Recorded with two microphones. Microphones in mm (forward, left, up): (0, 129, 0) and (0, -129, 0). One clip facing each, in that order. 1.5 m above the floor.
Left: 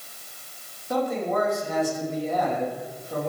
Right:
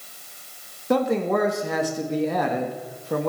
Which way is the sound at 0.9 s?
65° right (ahead or behind).